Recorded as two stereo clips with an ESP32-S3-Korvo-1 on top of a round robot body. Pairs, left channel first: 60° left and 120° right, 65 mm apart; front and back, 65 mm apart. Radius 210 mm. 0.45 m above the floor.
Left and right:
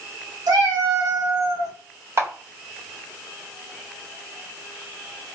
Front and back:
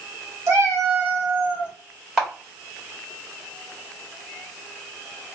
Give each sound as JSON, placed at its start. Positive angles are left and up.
{"t": 0.5, "sound": "a cat meowing", "azimuth_deg": -135, "distance_m": 1.5}
{"t": 2.2, "sound": "a camera shutter", "azimuth_deg": -105, "distance_m": 1.8}